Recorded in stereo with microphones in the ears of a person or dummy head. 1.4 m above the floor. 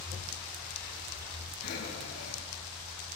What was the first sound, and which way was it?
Breathing, 50° left (ahead or behind).